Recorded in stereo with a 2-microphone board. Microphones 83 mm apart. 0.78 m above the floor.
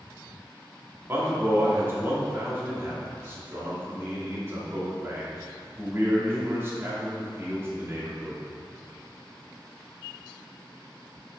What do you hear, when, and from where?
1.1 s a man speaking: 30° right (ahead or behind), 1.7 m